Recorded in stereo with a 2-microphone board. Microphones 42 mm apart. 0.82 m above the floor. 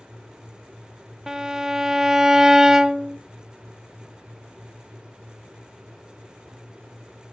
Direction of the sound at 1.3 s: 10° right (ahead or behind).